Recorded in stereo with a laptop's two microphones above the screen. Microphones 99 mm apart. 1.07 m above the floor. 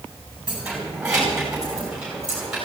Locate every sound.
0.5 s keys jangling: 10° right (ahead or behind), 5.5 m; by 2.6 s 5° right (ahead or behind), 8 m